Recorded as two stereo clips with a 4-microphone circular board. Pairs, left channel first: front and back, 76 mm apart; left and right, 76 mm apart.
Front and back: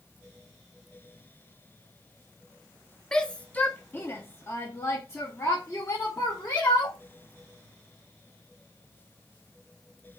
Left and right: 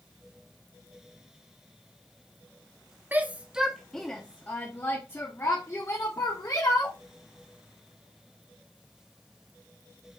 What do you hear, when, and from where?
3.1 s a shout: 70° right, 0.9 m; by 7.0 s 50° left, 2 m